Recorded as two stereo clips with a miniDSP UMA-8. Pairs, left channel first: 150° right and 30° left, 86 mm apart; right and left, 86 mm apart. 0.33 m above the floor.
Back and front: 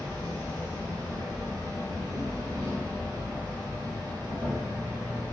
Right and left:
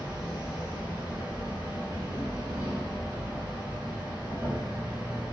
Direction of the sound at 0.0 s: 55° left.